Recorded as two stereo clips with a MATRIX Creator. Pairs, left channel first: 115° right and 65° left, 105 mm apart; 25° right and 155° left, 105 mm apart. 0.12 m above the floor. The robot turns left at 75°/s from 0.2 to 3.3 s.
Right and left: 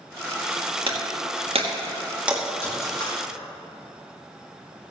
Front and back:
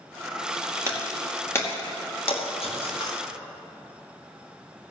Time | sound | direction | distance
0.9 | breaking glass | 95° left | 4.5 m